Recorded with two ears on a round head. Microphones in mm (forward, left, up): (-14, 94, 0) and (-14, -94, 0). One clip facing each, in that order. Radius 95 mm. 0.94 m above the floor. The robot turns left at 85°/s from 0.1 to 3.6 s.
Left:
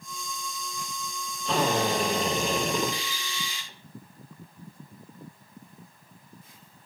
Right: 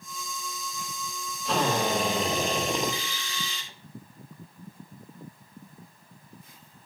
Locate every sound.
1.4 s a drill: 175° right, 2.5 m; by 3.7 s straight ahead, 2.5 m